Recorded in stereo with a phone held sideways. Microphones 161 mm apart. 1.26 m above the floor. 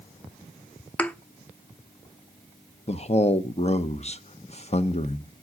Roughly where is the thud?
Centre.